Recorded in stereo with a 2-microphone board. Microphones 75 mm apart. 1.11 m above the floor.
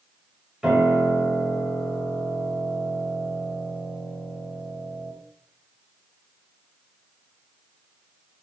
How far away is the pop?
No pop in this recording.